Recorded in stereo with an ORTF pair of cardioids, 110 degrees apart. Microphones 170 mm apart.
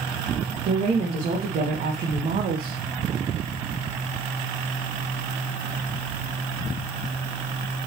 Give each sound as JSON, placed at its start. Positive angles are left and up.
{"t": 0.7, "sound": "a woman speaking", "azimuth_deg": -55, "distance_m": 2.5}